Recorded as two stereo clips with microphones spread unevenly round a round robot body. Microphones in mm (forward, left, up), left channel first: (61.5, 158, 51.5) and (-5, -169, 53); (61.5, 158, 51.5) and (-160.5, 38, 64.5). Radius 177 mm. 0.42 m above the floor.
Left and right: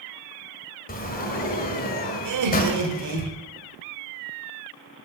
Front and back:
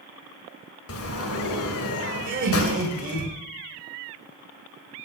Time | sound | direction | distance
0.9 | a sliding door | 15° left | 1.7 m
2.2 | laughter | 100° right | 2.5 m